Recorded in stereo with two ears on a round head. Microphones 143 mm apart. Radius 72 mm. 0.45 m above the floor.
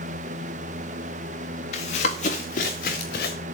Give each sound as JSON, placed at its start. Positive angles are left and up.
{"t": 1.7, "sound": "running footsteps", "side_deg": 45, "distance_m": 3.5}